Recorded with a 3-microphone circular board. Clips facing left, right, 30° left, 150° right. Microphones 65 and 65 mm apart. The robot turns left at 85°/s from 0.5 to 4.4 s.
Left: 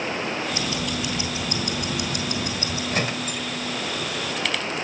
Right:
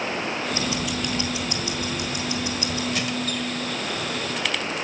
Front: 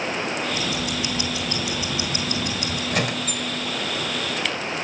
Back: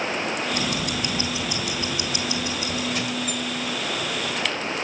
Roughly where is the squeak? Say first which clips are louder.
Even, front 2 dB; ahead left.